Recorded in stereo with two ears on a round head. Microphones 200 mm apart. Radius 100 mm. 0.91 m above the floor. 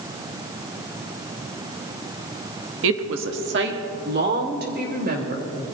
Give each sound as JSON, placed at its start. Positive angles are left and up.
{"t": 2.8, "sound": "a woman speaking", "side_deg": -60, "distance_m": 1.0}